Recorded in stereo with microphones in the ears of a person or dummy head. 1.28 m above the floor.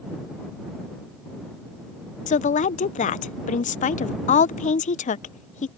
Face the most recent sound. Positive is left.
turn(degrees=35)  # may be behind; listen again after turning